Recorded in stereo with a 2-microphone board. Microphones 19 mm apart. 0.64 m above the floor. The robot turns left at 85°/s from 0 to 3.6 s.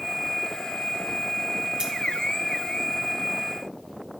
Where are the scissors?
55° right (ahead or behind), 3 m; by 1.9 s 65° right (ahead or behind), 3 m.